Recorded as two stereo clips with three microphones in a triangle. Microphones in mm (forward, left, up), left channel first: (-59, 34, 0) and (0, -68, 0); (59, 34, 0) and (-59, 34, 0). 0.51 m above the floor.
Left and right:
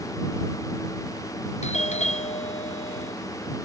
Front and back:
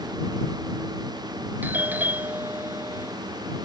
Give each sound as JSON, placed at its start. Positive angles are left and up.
{"t": 1.6, "sound": "a doorbell", "azimuth_deg": 105}